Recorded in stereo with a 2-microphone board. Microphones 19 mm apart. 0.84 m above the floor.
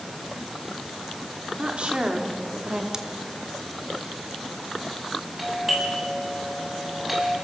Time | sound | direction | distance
1.6 | a woman speaking | 55° right (ahead or behind) | 2.5 m
2.9 | scissors | 30° right (ahead or behind) | 1.6 m
5.4 | a doorbell | 10° right (ahead or behind) | 7.5 m